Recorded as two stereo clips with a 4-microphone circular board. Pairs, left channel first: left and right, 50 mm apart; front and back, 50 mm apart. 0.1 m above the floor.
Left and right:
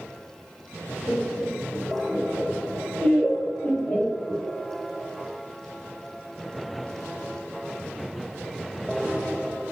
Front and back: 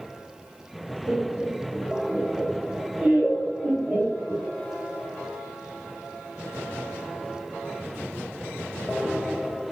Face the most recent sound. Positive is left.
turn(degrees=150)